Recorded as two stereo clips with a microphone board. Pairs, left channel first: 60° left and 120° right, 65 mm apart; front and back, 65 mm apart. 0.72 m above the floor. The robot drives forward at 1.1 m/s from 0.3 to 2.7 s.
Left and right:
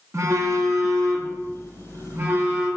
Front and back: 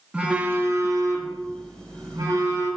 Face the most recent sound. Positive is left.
turn(degrees=-170)